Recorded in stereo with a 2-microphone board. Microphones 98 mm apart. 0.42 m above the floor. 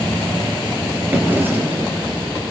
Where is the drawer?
20° right (ahead or behind), 5 m.